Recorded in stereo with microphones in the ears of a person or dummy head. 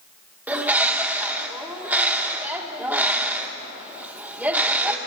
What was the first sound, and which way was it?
A bird, 10° right (ahead or behind).